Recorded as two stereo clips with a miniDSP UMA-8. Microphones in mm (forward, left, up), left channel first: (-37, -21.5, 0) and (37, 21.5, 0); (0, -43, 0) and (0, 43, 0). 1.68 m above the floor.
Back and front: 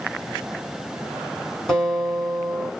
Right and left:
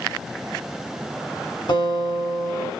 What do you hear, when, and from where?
1.7 s a guitar: 70° right, 3 m